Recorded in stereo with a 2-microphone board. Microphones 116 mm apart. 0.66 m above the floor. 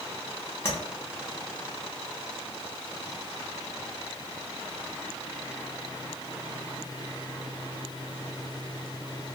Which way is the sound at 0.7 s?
20° left (ahead or behind).